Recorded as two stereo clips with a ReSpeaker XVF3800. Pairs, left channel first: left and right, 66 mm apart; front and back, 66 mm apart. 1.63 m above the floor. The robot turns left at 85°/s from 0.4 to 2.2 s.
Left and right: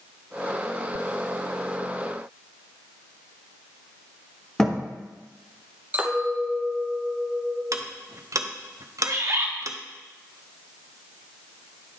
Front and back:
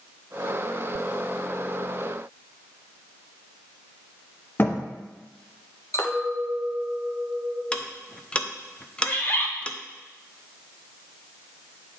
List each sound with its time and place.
4.6 s a thud: 15° left, 1.1 m
5.9 s a clink: 30° right, 1.2 m
7.7 s ticking: 70° right, 0.6 m
9.1 s a bird: 60° right, 1.1 m